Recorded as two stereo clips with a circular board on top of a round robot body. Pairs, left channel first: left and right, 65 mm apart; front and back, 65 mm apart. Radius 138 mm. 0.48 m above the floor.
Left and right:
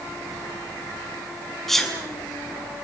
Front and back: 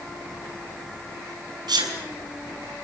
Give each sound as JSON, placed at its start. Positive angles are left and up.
{"t": 1.7, "sound": "a sneeze", "azimuth_deg": 175, "distance_m": 6.0}